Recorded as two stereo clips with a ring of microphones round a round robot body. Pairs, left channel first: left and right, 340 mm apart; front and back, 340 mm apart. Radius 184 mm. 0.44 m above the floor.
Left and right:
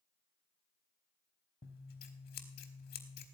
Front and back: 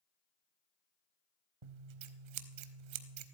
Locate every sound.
1.6 s scissors: 155° left, 0.8 m